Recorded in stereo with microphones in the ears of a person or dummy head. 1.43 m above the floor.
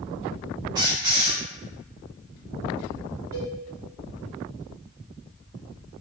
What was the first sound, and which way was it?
A squeak, 15° right (ahead or behind).